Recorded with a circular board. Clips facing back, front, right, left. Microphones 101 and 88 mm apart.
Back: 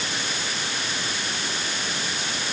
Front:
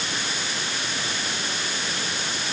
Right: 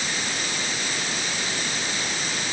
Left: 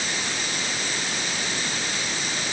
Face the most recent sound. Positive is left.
No sound to turn to.